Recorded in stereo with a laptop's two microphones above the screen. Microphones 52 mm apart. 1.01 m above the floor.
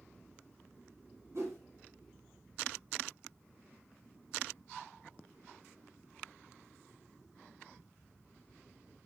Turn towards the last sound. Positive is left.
turn(degrees=-60)  # may be behind; listen again after turning